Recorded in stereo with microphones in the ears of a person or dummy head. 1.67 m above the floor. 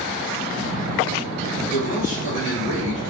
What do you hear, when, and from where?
1.7 s a man speaking: 80° left, 4 m; by 3.0 s 85° left, 3 m